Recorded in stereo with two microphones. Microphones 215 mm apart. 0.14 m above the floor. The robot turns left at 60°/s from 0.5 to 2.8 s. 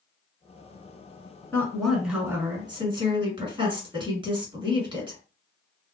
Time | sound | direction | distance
1.5 | a woman speaking | 10° left (ahead or behind) | 1.4 m